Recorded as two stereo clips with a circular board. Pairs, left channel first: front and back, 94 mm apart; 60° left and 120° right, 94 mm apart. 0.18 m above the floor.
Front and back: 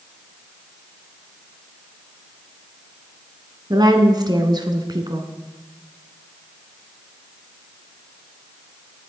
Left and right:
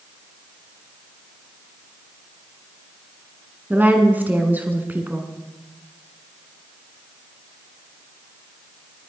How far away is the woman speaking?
About 1.6 m.